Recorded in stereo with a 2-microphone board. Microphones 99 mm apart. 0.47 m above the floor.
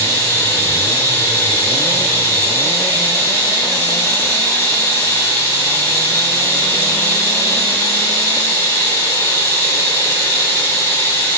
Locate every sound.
0.0 s running water: 35° left (ahead or behind), 1.5 m